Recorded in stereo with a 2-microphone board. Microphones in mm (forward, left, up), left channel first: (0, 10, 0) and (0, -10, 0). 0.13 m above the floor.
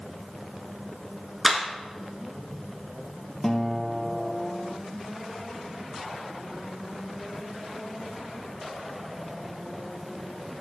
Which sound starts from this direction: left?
A guitar, at 3.4 s.